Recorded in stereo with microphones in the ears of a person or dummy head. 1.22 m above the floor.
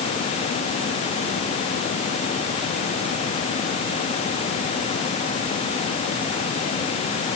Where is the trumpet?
I don't hear a trumpet.